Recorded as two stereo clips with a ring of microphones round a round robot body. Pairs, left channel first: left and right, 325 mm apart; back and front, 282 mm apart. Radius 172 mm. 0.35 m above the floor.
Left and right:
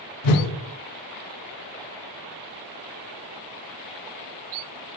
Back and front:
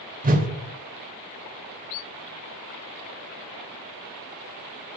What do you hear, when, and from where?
0.2 s a whoosh: 65° left, 0.5 m